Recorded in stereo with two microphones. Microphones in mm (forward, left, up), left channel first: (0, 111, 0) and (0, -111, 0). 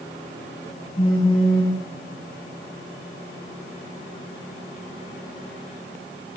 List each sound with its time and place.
1.0 s a phone buzzing: 30° left (ahead or behind), 8 m